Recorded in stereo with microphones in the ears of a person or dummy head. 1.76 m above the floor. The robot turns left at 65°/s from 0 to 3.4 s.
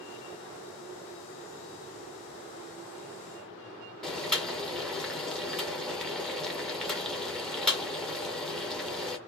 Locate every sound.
4.0 s boiling: centre (ahead or behind), 0.5 m